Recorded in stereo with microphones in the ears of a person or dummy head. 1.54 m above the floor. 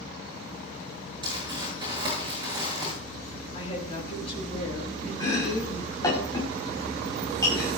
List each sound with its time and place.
1.2 s crumpling: 25° right (ahead or behind), 7.5 m
3.5 s a woman speaking: 35° left (ahead or behind), 7 m
5.2 s chopping: 20° left (ahead or behind), 6 m